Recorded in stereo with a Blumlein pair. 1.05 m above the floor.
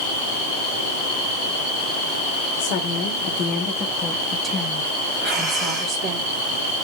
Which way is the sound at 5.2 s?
20° right.